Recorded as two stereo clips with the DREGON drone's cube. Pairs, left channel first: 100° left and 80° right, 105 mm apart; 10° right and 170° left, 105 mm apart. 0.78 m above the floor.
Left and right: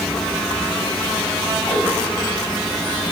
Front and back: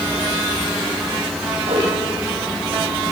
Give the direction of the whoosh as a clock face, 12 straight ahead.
6 o'clock.